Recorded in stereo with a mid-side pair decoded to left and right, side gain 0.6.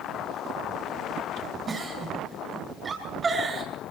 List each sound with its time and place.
1.7 s a giggle: 30° right, 9 m